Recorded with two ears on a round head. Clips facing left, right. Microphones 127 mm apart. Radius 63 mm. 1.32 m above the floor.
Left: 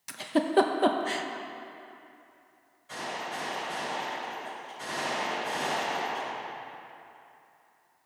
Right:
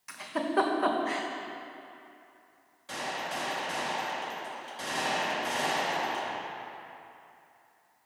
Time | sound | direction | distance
0.1 | a giggle | 35° left (ahead or behind) | 0.5 m
2.9 | a gunshot | 80° right | 2.5 m